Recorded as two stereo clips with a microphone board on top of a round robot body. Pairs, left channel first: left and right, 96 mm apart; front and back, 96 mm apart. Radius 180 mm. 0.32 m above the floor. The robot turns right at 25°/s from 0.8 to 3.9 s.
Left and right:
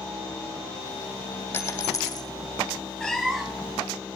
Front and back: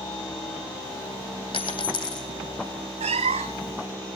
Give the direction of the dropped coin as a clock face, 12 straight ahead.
11 o'clock.